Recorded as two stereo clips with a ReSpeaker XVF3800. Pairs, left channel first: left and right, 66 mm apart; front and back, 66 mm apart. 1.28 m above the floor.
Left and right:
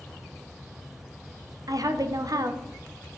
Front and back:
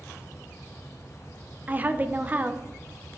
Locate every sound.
1.7 s a woman speaking: 115° right, 0.6 m